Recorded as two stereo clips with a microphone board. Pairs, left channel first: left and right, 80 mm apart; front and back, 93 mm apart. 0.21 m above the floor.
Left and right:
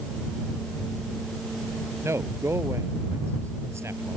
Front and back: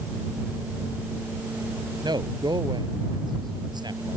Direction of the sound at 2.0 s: 145° right.